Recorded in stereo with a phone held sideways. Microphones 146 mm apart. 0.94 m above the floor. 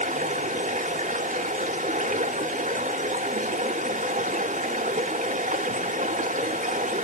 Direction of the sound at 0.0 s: 60° right (ahead or behind).